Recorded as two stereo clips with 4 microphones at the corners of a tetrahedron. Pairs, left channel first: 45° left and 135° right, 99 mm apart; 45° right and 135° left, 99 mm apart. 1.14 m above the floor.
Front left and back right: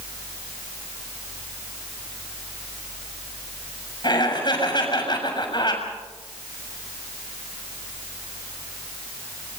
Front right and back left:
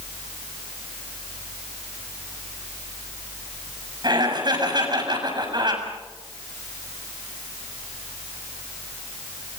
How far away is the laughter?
About 7 m.